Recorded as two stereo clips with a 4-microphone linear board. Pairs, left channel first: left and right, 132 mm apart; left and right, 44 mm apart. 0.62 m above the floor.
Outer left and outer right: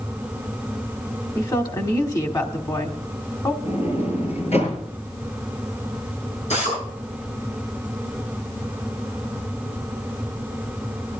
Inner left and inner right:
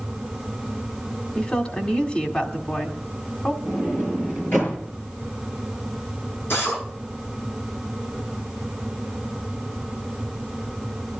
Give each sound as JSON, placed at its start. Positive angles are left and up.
{"t": 1.4, "sound": "a woman speaking", "side_deg": 30, "distance_m": 1.7}
{"t": 3.6, "sound": "a sliding door", "side_deg": 55, "distance_m": 6.5}
{"t": 6.5, "sound": "a drill", "side_deg": 60, "distance_m": 9.0}